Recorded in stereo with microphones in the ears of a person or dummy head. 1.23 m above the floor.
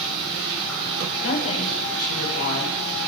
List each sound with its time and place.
0.0 s running water: 70° right (ahead or behind), 7.5 m
1.2 s a woman speaking: 85° left, 5.5 m